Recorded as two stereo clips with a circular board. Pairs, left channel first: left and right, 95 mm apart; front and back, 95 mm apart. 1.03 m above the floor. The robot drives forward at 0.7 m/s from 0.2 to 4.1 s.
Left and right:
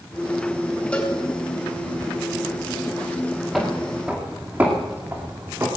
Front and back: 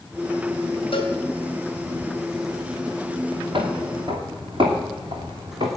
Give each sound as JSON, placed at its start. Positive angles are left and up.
{"t": 0.9, "sound": "a cowbell", "azimuth_deg": 15, "distance_m": 2.5}
{"t": 3.5, "sound": "footsteps", "azimuth_deg": 180, "distance_m": 2.0}